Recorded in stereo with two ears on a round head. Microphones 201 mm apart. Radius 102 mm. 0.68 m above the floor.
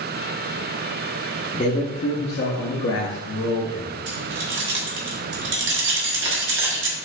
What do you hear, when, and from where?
1.5 s a man speaking: 25° left (ahead or behind), 0.7 m; by 3.9 s 55° left (ahead or behind), 1.3 m
4.1 s keys jangling: 55° right (ahead or behind), 1.1 m